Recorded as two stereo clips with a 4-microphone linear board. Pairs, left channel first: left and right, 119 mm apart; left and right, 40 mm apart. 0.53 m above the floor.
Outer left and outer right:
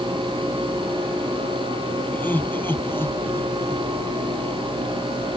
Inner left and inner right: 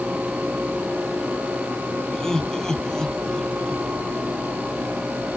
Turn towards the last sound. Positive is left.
turn(degrees=20)  # may be behind; listen again after turning